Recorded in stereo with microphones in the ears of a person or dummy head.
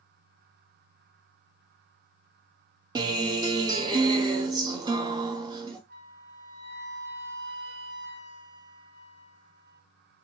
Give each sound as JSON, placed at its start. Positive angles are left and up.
{"t": 3.0, "sound": "a guitar", "side_deg": -20, "distance_m": 0.6}
{"t": 5.9, "sound": "a flute", "side_deg": -50, "distance_m": 0.7}